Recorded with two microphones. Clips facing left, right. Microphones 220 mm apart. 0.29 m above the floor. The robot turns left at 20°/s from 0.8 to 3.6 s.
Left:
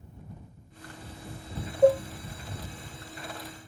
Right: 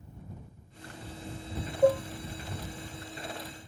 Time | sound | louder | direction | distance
1.8 | dishes clattering | left 3 dB | 20° left (ahead or behind) | ?